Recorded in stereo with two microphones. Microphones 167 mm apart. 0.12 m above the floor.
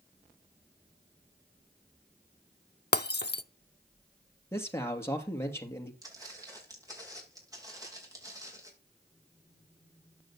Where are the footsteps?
20° right (ahead or behind), 9.5 m.